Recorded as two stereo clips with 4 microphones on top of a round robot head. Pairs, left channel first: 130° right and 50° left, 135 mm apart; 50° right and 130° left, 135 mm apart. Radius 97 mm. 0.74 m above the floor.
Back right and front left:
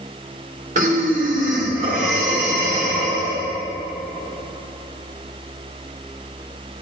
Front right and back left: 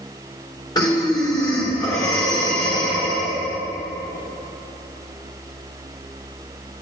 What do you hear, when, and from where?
0.8 s breathing: 15° left, 1.6 m